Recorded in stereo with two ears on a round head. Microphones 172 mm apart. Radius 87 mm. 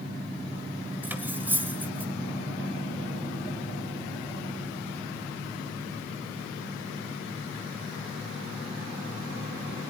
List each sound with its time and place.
1.0 s cutlery clinking: 10° right (ahead or behind), 1.3 m